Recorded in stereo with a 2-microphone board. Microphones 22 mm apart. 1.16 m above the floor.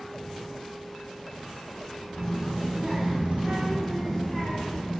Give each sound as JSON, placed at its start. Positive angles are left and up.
{"t": 2.1, "sound": "a child speaking", "side_deg": -60, "distance_m": 1.3}